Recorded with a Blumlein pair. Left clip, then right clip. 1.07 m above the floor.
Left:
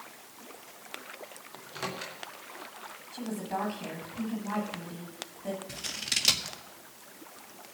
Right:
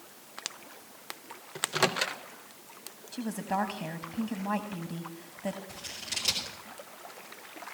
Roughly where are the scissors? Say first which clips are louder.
Left 5 dB; ahead left.